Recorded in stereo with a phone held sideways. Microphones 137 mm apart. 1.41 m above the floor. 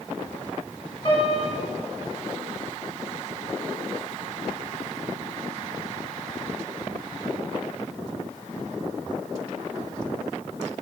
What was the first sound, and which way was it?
A piano, 40° left (ahead or behind).